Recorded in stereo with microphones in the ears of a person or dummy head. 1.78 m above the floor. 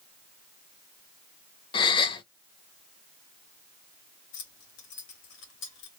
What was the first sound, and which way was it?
A gasp, 25° left (ahead or behind).